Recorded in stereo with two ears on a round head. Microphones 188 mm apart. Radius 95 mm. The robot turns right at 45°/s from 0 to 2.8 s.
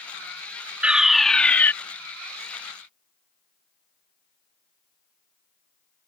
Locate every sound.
0.8 s a fire alarm: 5° right (ahead or behind); by 1.7 s 10° left (ahead or behind)